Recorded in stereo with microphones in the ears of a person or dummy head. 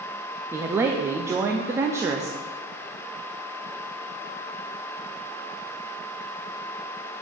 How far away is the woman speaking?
About 0.6 m.